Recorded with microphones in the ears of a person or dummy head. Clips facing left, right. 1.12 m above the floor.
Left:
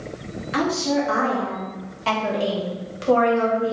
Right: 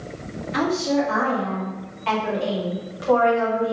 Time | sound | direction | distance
0.5 | a woman speaking | 65° left (ahead or behind) | 1.9 m